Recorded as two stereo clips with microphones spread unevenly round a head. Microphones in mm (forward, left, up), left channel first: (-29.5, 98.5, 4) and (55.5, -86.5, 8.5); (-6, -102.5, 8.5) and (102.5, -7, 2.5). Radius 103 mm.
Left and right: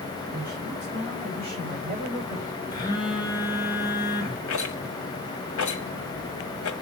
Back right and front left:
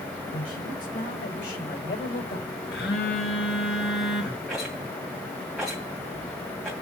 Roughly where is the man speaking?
Behind right.